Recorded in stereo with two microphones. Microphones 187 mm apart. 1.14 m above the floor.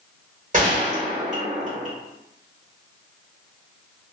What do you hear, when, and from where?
0.5 s a gunshot: 40° right (ahead or behind), 1.3 m